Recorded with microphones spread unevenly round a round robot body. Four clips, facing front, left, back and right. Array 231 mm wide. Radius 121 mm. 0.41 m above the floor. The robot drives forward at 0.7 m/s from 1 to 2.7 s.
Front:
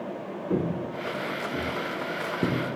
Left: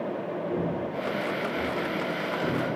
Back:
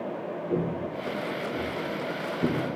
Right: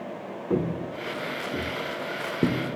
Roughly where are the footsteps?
Ahead right.